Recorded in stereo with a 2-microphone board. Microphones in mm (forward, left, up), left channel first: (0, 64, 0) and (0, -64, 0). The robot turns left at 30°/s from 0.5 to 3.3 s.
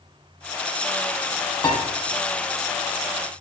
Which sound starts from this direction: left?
A piano, at 1.6 s.